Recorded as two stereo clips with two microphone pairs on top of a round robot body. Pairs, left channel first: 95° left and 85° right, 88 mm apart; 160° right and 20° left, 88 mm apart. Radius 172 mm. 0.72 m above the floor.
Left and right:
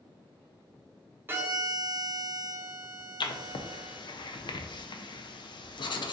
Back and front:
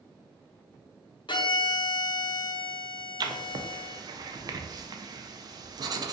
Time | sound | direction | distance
1.3 | a violin | 150° right | 0.7 m
3.2 | writing | 65° left | 0.5 m